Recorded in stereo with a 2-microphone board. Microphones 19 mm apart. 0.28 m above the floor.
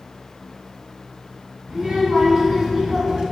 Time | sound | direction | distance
1.7 | a child speaking | 50° right (ahead or behind) | 2 m